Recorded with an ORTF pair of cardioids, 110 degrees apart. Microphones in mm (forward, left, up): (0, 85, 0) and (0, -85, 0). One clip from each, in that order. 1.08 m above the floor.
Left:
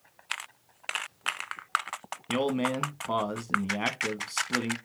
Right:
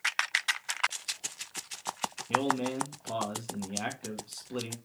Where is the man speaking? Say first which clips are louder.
Left 1 dB; 50° left, 1.2 m.